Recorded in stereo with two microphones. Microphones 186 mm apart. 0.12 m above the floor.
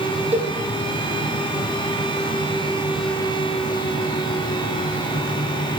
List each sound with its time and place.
0.3 s a cowbell: 35° right (ahead or behind), 4.5 m